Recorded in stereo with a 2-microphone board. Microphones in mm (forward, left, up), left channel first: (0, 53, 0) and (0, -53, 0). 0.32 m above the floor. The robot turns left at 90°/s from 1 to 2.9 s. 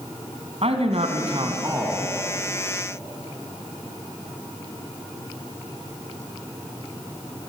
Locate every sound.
0.6 s a man speaking: 90° right, 3 m; by 2.2 s 165° left, 3 m